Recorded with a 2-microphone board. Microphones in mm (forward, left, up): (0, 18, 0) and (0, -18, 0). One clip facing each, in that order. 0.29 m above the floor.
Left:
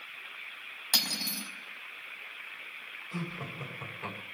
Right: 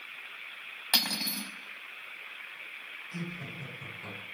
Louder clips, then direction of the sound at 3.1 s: Left 2 dB; 55° left (ahead or behind).